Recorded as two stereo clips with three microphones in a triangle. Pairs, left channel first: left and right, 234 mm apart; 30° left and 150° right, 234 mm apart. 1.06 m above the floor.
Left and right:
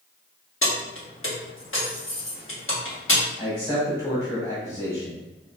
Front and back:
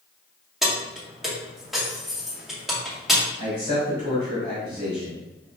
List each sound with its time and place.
0.6 s keys jangling: 120° left, 1.1 m
3.4 s a man speaking: 160° left, 1.7 m